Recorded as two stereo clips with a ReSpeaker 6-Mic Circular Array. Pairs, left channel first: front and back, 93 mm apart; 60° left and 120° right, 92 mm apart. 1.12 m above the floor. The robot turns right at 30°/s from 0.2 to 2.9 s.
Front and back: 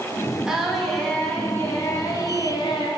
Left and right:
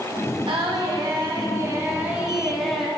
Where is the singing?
100° right, 1.5 m; by 2.9 s 25° right, 1.5 m.